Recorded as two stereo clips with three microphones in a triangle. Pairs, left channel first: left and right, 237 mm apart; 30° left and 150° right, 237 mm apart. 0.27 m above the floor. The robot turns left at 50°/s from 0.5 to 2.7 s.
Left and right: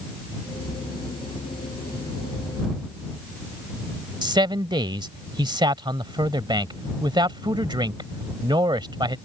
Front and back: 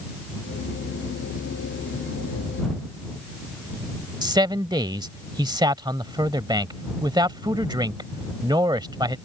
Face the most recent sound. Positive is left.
turn(degrees=-115)